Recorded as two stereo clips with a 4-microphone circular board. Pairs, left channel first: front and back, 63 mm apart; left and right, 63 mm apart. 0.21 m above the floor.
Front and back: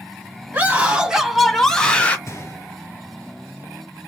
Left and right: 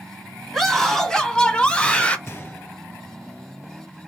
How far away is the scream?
About 1.3 m.